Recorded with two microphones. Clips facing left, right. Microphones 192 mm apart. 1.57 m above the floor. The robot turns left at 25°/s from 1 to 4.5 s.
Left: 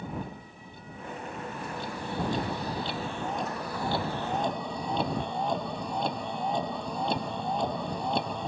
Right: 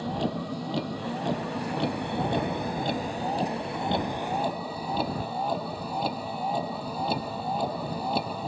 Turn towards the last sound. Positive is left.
turn(degrees=-175)